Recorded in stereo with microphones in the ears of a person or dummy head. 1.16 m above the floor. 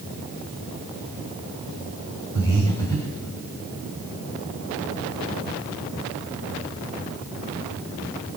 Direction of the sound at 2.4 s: 15° left (ahead or behind).